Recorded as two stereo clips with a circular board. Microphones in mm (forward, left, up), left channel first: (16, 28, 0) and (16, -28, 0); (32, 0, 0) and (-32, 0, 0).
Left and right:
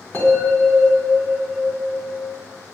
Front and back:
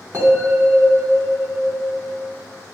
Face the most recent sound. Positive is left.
turn(degrees=145)